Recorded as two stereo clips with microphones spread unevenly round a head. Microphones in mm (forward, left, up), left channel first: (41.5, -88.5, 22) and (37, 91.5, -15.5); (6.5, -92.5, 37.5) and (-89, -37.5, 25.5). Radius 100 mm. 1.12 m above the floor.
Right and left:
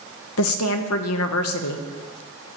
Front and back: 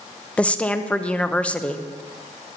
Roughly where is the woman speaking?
Right.